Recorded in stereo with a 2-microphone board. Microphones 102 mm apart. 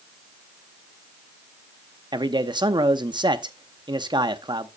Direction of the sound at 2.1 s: 45° right (ahead or behind).